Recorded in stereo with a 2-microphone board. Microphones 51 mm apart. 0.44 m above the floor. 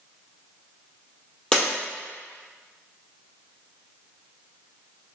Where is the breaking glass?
10° left (ahead or behind), 1.4 m.